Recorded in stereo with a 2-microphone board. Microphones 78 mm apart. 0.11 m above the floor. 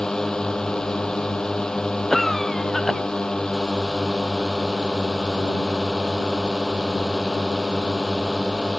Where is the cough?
5° left (ahead or behind).